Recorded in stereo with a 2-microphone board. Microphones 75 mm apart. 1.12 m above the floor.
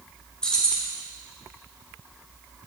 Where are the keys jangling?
10° left (ahead or behind), 0.8 m.